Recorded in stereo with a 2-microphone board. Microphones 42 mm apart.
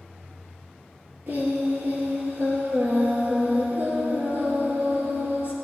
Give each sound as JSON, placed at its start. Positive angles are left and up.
{"t": 1.3, "sound": "singing", "side_deg": -45, "distance_m": 3.0}